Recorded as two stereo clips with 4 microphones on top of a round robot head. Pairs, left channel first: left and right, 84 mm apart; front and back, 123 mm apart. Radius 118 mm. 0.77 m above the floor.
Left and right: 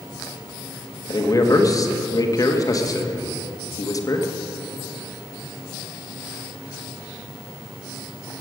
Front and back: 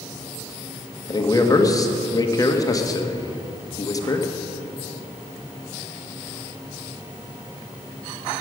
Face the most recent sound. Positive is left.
turn(degrees=55)